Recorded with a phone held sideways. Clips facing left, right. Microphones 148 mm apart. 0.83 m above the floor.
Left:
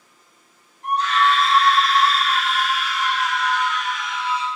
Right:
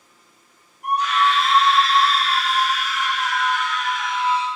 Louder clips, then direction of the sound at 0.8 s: Even; 10° right (ahead or behind).